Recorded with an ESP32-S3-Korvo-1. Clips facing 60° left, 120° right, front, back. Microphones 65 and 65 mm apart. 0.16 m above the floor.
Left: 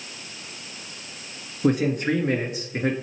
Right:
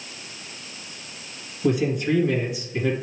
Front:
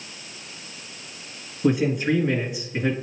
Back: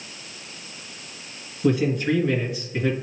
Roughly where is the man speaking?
Ahead left.